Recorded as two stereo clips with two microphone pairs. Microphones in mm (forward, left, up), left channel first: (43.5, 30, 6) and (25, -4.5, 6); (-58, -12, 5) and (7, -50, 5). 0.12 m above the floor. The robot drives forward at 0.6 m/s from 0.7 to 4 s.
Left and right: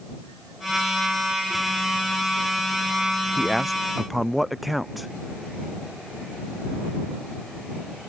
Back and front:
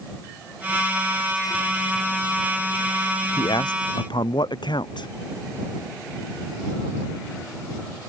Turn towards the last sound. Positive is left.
turn(degrees=155)